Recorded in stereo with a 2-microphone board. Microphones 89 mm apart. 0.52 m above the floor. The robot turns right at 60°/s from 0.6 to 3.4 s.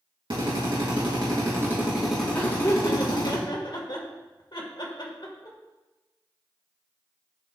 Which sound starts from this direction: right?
A drill, at 0.3 s.